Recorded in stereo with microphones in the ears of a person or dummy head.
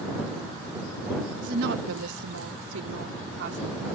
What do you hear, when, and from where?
1.4 s a woman speaking: 45° right (ahead or behind); by 4.0 s 60° right (ahead or behind)